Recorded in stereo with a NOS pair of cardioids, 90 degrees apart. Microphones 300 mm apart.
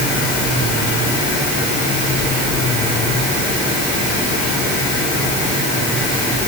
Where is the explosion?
No explosion in this recording.